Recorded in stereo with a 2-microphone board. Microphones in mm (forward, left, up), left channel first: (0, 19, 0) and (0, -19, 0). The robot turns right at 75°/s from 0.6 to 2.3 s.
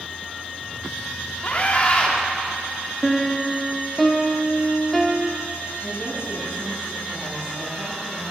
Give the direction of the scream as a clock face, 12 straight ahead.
9 o'clock.